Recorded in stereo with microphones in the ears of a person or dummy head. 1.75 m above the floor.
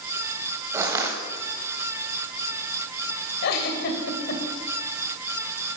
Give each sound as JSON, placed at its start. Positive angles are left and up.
{"t": 0.7, "sound": "crushing", "side_deg": -10, "distance_m": 1.7}
{"t": 3.4, "sound": "a giggle", "side_deg": 55, "distance_m": 2.5}